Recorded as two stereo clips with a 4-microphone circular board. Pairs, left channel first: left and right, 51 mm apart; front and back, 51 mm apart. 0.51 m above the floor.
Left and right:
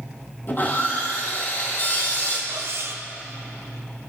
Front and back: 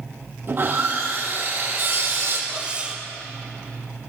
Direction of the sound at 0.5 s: 140° left.